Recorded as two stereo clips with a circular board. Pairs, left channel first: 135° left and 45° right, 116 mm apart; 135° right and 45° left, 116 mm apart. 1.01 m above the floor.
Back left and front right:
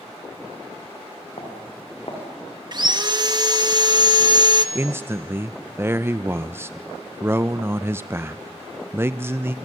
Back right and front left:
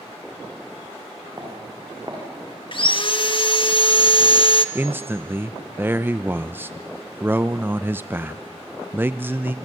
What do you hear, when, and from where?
1.4 s footsteps: 100° left, 6.5 m
2.7 s sawing: 95° right, 1.0 m
4.8 s a man speaking: 5° right, 0.5 m